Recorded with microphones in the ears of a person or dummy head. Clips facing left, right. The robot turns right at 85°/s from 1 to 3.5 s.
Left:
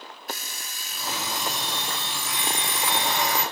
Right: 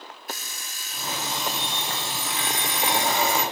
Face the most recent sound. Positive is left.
turn(degrees=-20)